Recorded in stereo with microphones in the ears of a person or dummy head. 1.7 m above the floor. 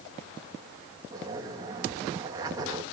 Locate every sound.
1.1 s a zipper: 20° right (ahead or behind), 1.6 m